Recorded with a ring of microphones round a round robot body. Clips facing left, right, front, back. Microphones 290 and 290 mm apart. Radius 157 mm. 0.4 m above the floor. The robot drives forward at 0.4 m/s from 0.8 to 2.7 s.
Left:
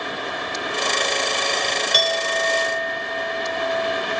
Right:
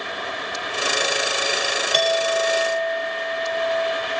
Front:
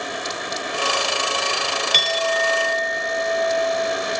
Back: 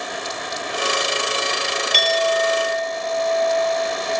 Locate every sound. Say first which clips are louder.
1.9 s a clink: right 7 dB, back 5 dB; 30° left, 0.8 m; by 4.1 s 55° left, 0.6 m